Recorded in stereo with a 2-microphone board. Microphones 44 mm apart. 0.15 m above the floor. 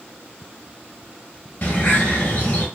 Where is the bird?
40° left (ahead or behind), 1.2 m.